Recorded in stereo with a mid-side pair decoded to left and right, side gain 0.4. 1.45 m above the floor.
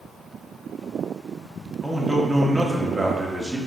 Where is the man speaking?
25° right, 1.2 m.